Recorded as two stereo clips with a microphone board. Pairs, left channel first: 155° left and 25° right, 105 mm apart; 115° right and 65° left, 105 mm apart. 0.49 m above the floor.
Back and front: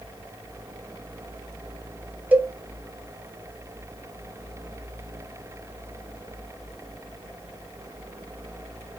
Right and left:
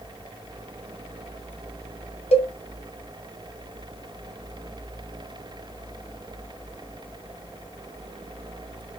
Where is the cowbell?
100° right, 0.6 m.